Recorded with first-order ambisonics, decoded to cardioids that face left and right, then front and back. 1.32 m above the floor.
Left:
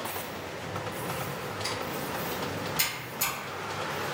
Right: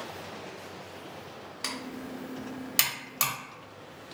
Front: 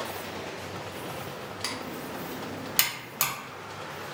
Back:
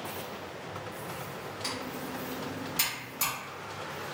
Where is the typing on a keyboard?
45° right, 0.8 m.